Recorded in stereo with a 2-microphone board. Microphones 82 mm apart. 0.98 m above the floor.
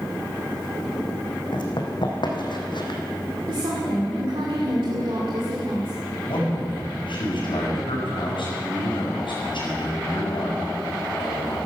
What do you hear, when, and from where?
1.5 s running footsteps: 65° left (ahead or behind), 3 m
3.5 s a woman speaking: 75° right (ahead or behind), 2.5 m
6.3 s a man speaking: 80° left, 6.5 m